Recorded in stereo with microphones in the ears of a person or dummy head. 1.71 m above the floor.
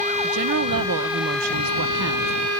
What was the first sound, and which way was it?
A woman speaking, 55° right (ahead or behind).